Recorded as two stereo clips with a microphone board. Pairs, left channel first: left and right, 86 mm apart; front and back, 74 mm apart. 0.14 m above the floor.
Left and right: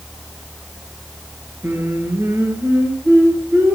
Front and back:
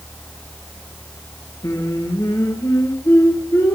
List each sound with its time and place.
1.6 s singing: 30° right, 3 m